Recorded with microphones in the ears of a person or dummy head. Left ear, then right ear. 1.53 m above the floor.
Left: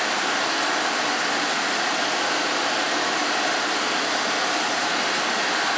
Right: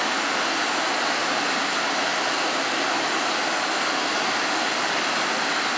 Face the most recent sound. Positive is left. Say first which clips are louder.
# left 1 dB
turn(degrees=65)  # may be behind; listen again after turning